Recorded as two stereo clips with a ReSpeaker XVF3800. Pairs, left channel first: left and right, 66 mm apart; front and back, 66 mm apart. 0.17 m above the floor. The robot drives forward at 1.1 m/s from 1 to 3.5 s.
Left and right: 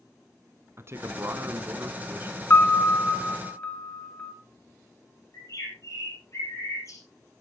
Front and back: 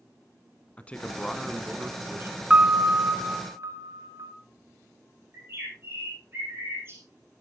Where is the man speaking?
65° right, 1.3 m; by 2.4 s 145° right, 1.7 m.